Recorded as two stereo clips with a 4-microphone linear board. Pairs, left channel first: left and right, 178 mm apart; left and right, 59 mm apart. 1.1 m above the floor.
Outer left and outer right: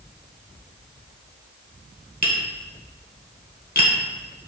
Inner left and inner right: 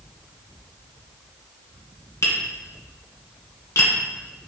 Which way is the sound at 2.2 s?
60° left (ahead or behind).